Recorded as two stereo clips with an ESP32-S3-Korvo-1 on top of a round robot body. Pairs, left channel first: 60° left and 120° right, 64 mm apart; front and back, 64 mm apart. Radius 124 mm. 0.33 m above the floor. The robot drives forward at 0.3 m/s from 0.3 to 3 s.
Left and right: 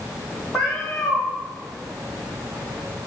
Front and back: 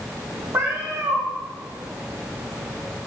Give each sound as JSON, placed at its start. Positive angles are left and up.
{"t": 0.5, "sound": "a cat meowing", "azimuth_deg": 130, "distance_m": 0.9}